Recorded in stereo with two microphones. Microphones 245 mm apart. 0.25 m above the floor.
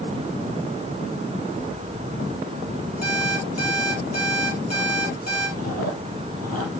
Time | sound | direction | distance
3.0 | an alarm clock | 80° left | 5 m
5.6 | chewing | 75° left (ahead or behind) | 4.5 m